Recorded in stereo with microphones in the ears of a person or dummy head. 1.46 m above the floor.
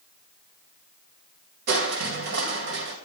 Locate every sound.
1.7 s crushing: 60° right (ahead or behind), 2 m